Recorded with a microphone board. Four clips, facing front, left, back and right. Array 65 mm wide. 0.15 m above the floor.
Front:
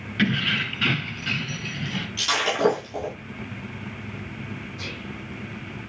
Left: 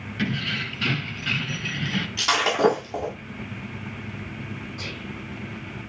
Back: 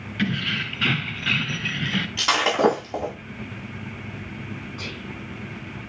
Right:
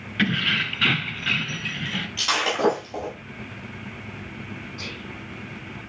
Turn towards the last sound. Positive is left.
turn(degrees=180)